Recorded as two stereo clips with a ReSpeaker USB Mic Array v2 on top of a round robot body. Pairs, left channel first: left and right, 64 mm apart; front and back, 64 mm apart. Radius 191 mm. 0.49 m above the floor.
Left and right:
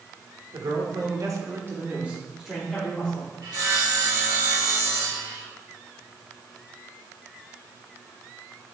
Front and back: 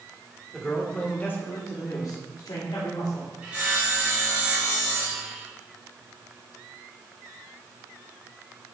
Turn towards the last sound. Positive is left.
turn(degrees=-110)